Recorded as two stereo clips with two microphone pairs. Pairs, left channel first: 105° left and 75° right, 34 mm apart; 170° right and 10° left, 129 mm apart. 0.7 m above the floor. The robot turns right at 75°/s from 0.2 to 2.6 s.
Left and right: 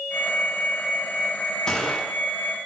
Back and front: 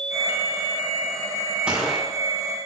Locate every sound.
1.7 s a gunshot: 85° left, 1.0 m; by 2.1 s 115° left, 1.0 m